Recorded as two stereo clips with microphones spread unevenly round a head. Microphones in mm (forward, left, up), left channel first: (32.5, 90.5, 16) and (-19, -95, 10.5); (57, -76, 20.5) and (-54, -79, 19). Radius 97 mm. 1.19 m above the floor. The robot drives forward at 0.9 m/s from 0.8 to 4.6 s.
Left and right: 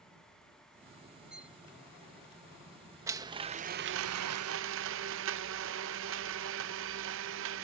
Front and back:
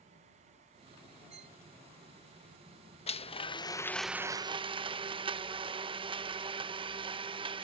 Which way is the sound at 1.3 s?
170° left.